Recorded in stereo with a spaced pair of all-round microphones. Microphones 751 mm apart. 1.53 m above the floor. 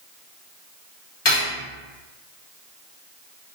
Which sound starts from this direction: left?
Cutlery clinking, at 1.2 s.